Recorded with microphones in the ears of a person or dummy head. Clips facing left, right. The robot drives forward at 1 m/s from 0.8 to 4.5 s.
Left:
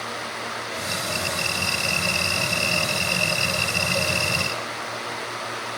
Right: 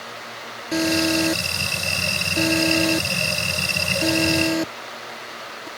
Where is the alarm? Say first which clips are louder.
Right 15 dB; 80° right; by 5.7 s 65° right (ahead or behind).